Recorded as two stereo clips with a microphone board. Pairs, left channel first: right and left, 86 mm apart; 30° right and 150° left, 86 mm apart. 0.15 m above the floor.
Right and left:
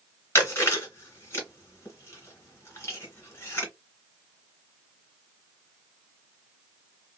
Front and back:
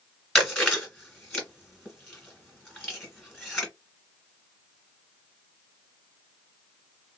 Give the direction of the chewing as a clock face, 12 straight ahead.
4 o'clock.